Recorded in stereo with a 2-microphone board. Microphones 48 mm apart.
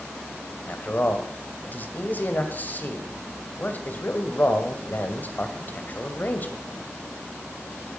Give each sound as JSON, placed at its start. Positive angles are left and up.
{"t": 0.7, "sound": "a man speaking", "side_deg": 40, "distance_m": 2.0}